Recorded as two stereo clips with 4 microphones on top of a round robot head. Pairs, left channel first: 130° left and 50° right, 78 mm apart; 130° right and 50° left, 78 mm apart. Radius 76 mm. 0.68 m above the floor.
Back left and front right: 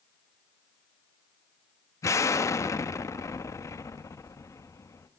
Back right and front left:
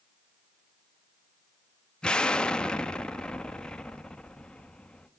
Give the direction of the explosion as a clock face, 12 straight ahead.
7 o'clock.